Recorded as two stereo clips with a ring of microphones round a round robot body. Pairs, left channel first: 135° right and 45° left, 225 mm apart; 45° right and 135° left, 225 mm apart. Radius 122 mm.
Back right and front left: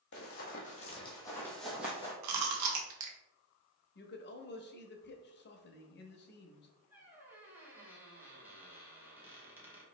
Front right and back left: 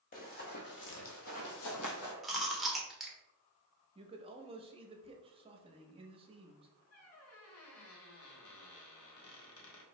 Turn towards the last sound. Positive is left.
turn(degrees=-35)